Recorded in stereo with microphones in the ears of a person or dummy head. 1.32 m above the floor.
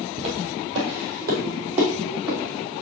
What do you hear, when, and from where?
0.2 s footsteps: 35° right (ahead or behind), 2 m; by 2.4 s 5° right (ahead or behind), 3.5 m